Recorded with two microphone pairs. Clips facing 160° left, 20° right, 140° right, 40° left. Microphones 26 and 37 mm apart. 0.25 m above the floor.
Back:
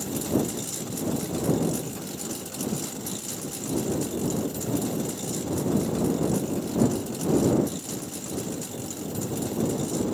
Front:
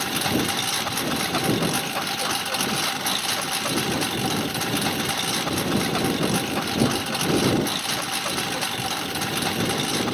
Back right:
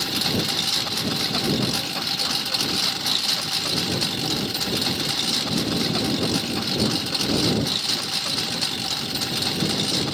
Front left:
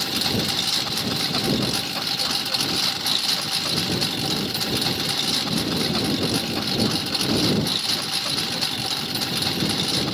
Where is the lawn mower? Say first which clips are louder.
Front 4 dB, even; 50° right; by 10.2 s 45° right.